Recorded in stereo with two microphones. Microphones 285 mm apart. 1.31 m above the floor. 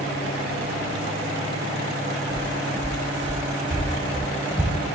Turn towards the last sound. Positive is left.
turn(degrees=-5)  # may be behind; listen again after turning